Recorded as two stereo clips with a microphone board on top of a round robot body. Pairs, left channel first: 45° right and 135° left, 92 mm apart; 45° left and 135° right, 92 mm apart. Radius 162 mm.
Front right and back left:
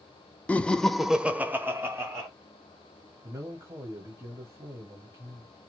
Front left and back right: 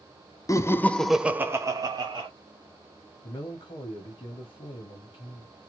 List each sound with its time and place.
0.5 s laughter: 20° left, 0.6 m; by 2.3 s 170° right, 0.9 m
3.2 s a man speaking: 75° left, 1.1 m